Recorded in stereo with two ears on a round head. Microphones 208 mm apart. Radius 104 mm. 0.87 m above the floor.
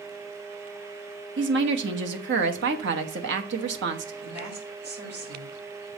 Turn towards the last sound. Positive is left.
turn(degrees=-55)  # may be behind; listen again after turning